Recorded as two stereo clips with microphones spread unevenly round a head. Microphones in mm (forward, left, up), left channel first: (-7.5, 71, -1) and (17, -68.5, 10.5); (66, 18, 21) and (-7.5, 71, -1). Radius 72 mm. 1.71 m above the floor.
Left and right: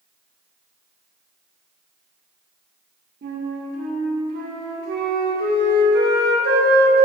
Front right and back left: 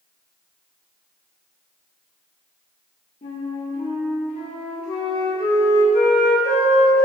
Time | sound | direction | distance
3.2 | a flute | 60° right | 0.5 m